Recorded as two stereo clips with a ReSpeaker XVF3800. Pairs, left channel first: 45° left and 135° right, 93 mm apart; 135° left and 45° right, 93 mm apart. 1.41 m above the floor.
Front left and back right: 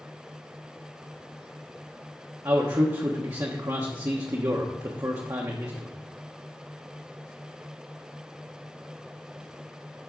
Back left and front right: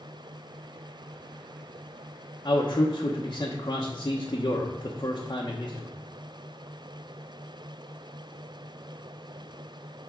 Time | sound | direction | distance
2.5 | a man speaking | 175° left | 1.0 m